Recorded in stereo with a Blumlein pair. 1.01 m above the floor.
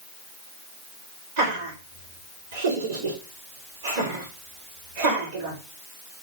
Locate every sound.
1.4 s laughter: 60° right, 1.4 m